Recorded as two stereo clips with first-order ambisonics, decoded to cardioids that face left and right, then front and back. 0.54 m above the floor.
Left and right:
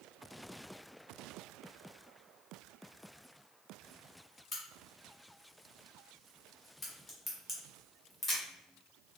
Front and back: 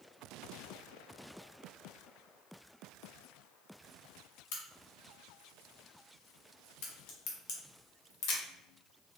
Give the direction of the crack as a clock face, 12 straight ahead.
12 o'clock.